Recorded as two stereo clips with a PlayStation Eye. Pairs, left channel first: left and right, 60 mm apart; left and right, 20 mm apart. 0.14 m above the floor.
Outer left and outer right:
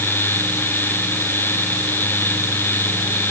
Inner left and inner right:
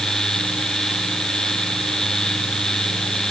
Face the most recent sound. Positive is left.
No sound to turn to.